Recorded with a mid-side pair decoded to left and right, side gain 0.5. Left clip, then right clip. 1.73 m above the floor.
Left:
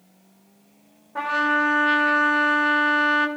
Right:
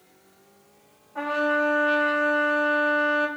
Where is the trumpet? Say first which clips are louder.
Left 3 dB; 55° left, 1.1 m.